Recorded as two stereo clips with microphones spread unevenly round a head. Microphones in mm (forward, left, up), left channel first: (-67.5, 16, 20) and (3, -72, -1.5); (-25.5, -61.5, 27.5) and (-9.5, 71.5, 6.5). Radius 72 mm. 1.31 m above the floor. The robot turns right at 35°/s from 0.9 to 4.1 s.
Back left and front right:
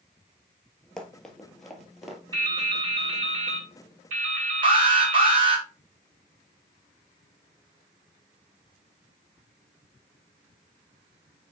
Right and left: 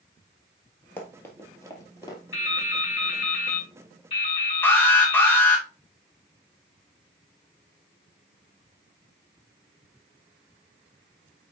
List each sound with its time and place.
1.0 s running footsteps: 160° right, 1.8 m; by 2.2 s 145° right, 2 m
2.3 s dripping: 110° right, 3.5 m; by 5.5 s 50° right, 3.5 m
4.6 s an alarm: 20° right, 1.8 m